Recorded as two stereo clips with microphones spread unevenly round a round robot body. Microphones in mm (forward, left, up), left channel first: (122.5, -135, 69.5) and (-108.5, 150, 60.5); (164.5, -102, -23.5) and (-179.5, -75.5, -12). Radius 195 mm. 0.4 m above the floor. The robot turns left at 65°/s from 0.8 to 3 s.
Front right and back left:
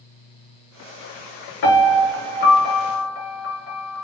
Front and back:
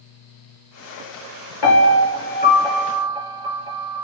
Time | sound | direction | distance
1.6 | a piano | 20° right | 4 m